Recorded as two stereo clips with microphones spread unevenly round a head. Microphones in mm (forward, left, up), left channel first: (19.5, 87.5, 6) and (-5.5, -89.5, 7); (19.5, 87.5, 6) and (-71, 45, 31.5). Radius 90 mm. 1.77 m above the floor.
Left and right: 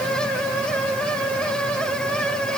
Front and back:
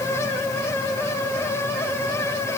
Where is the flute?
No flute in this recording.